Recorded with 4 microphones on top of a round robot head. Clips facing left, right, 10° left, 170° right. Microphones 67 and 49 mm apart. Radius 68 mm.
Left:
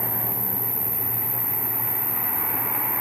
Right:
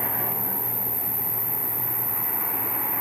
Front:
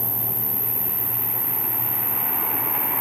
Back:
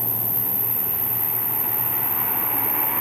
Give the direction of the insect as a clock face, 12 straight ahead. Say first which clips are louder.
Right 1 dB, even; 12 o'clock.